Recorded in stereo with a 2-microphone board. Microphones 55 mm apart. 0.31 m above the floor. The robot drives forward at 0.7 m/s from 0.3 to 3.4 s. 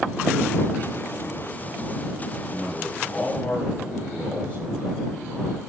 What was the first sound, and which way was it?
A man speaking, 25° left (ahead or behind).